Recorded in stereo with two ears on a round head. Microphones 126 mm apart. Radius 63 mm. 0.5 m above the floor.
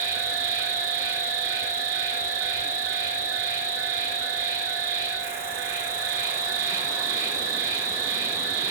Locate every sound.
0.0 s an insect: 20° right (ahead or behind), 0.9 m